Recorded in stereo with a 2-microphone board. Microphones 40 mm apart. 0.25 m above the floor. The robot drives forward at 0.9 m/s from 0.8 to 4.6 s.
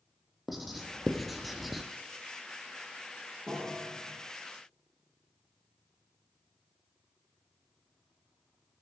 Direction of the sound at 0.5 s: Centre (ahead or behind).